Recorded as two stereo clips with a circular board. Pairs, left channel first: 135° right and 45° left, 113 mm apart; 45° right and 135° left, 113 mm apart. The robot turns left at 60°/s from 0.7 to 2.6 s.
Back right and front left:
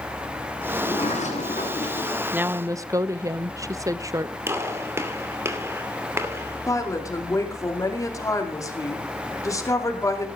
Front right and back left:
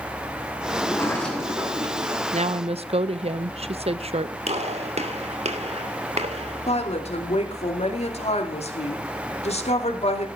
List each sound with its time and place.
0.7 s a sliding door: 100° right, 7 m; by 2.2 s 175° left, 7 m
2.3 s a woman speaking: 125° left, 0.7 m; by 4.4 s 105° left, 0.7 m
4.5 s a gunshot: 110° left, 2.5 m
6.7 s a woman speaking: 75° right, 2.5 m